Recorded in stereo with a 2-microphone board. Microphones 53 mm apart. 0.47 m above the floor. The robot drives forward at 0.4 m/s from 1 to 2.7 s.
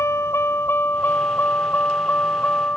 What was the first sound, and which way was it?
A vehicle, 60° left (ahead or behind).